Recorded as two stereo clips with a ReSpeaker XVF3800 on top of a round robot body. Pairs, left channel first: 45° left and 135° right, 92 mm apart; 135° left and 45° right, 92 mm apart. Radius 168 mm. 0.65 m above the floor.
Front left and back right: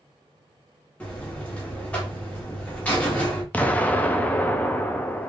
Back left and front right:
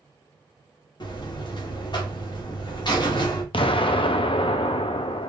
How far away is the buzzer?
About 1.4 m.